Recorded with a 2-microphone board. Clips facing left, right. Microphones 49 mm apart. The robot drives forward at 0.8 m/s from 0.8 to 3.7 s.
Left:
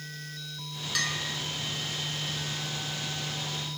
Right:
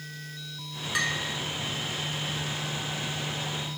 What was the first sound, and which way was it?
A bell, 20° right (ahead or behind).